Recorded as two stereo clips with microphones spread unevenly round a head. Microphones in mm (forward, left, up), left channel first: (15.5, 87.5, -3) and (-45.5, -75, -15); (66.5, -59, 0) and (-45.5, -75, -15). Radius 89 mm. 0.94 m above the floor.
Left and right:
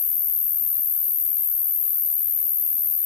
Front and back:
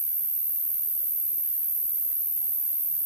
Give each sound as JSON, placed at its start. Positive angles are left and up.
{"t": 0.0, "sound": "an insect", "azimuth_deg": 95, "distance_m": 3.0}